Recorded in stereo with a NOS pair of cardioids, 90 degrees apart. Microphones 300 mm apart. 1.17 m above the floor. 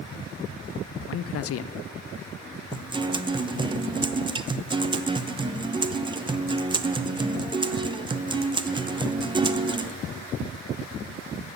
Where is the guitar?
15° right, 0.5 m.